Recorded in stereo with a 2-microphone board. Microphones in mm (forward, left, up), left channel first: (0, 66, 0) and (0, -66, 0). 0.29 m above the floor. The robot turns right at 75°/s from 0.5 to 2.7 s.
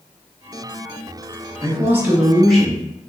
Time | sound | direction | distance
1.6 | a man speaking | 20° right (ahead or behind) | 0.9 m